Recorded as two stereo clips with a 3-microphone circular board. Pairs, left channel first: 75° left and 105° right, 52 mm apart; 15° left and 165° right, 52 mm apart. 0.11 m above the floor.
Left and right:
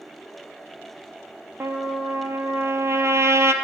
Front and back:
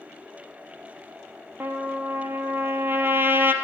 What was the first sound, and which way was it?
A trumpet, 125° right.